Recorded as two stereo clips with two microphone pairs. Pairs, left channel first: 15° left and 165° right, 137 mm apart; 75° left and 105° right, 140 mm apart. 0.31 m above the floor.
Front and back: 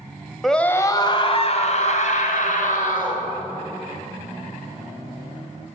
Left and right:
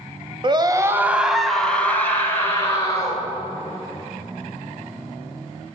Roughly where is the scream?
Right.